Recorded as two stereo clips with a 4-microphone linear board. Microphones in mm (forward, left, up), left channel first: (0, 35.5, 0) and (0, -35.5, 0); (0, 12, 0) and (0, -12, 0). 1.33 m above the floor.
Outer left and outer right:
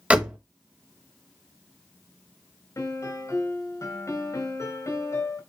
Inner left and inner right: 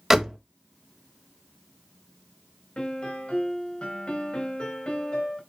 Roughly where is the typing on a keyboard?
No typing on a keyboard in this recording.